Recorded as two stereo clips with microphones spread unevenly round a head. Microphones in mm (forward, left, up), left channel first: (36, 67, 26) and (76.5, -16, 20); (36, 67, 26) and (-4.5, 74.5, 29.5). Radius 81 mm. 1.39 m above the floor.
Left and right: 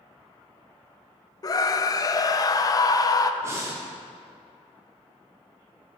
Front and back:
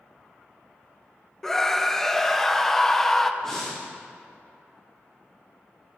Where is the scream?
70° left, 0.5 m.